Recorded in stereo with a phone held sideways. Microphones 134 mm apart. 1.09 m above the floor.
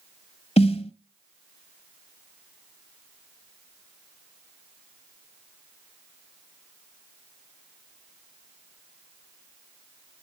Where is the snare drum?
50° left (ahead or behind), 1.2 m.